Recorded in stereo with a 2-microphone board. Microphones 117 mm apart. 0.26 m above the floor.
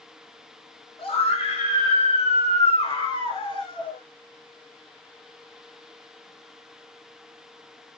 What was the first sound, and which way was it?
A scream, 50° left (ahead or behind).